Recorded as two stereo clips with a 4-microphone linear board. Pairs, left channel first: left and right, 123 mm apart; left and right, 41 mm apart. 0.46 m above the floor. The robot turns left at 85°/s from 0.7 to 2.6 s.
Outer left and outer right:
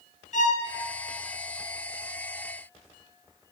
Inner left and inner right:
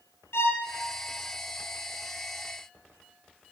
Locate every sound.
0.3 s a violin: 80° left, 1.8 m